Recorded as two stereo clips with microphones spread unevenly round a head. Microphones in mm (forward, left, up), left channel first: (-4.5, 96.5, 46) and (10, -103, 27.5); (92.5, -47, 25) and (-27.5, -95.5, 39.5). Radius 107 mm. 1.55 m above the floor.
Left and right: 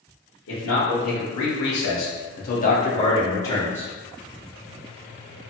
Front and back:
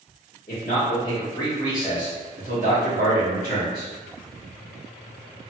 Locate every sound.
0.5 s a man speaking: 70° left, 1.0 m; by 3.9 s 175° left, 1.2 m